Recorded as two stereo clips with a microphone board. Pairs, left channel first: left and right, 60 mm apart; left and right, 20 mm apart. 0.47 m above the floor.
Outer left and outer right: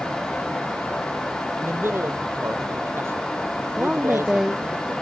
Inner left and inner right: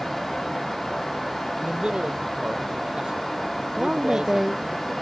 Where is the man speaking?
45° right (ahead or behind).